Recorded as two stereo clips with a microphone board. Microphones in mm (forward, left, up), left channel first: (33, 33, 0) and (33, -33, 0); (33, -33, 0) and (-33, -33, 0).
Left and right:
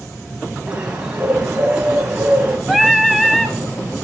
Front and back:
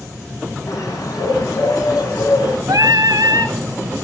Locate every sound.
0.7 s a bird: 15° right, 2.5 m
2.7 s singing: 170° left, 1.4 m